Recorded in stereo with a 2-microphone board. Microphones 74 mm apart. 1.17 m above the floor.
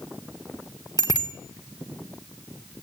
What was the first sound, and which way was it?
A bicycle bell, 60° right (ahead or behind).